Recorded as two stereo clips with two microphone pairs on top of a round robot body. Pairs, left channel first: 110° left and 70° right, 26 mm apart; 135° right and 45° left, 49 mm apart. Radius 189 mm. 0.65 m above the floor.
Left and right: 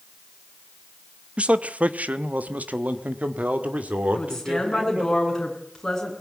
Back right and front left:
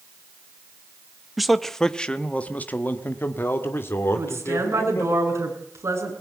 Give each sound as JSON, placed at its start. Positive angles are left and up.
{"t": 1.4, "sound": "a man speaking", "azimuth_deg": -30, "distance_m": 1.2}
{"t": 4.2, "sound": "a woman speaking", "azimuth_deg": 35, "distance_m": 9.0}